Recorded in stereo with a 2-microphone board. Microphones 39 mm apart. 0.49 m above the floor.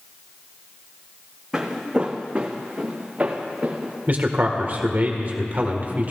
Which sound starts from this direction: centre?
Footsteps, at 1.5 s.